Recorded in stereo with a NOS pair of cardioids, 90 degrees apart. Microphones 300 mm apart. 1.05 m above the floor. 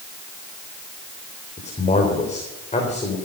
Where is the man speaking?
25° left, 4 m.